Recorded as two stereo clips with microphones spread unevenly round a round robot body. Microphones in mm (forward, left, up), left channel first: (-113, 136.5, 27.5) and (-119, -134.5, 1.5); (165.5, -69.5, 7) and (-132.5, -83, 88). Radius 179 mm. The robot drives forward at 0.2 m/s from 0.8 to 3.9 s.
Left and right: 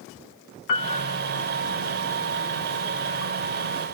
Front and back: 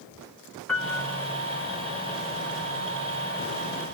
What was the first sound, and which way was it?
A piano, 90° left.